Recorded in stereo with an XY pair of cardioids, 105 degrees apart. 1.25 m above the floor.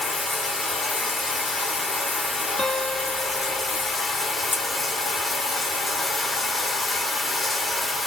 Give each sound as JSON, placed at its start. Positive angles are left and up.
{"t": 0.0, "sound": "running water", "azimuth_deg": 25, "distance_m": 1.3}
{"t": 2.6, "sound": "a guitar", "azimuth_deg": 20, "distance_m": 2.0}
{"t": 4.5, "sound": "scissors", "azimuth_deg": 25, "distance_m": 1.1}